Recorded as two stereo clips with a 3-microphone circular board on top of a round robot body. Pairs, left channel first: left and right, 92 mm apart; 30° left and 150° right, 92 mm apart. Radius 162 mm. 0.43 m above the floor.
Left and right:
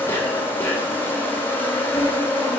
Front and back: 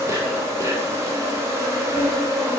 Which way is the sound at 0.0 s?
155° left.